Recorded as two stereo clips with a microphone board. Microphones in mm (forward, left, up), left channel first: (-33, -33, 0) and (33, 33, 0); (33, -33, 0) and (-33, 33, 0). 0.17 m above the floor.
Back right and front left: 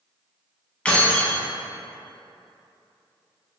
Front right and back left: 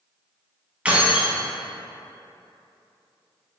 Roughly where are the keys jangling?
Behind.